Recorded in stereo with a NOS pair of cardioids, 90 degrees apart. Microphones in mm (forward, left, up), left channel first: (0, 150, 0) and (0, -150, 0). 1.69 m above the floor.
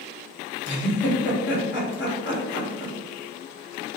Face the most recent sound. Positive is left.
turn(degrees=40)